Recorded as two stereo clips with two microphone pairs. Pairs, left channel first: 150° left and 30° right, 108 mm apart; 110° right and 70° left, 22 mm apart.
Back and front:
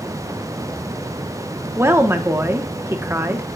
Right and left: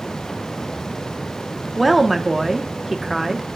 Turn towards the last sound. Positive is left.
turn(degrees=-15)